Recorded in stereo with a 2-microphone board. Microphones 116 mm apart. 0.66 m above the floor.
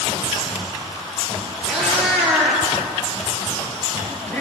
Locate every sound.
1.7 s a cat meowing: centre (ahead or behind), 7.5 m; by 4.4 s 10° left (ahead or behind), 7.5 m